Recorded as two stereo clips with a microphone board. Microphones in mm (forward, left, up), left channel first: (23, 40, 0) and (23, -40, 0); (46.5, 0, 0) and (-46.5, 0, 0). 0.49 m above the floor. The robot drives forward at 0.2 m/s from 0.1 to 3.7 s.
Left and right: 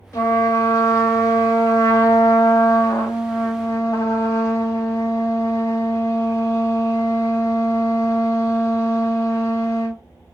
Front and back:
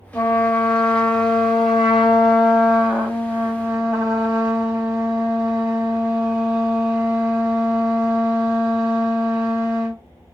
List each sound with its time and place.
0.1 s a trumpet: 65° left, 1.0 m; by 10.0 s 125° left, 1.1 m